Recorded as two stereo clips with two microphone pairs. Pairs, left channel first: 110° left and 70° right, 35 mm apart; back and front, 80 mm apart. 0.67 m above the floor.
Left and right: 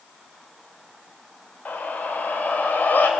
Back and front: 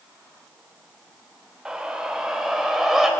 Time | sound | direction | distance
1.6 | a scream | 80° left | 3 m